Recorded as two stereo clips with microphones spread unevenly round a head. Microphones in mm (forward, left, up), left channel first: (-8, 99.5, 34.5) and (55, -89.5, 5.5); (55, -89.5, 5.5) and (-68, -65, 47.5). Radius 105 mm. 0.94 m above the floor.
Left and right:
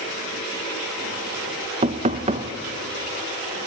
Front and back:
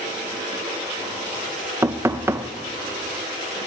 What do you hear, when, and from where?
1.8 s knocking: 110° right, 0.8 m